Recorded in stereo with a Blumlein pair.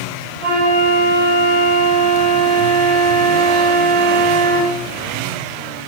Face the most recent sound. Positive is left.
turn(degrees=-30)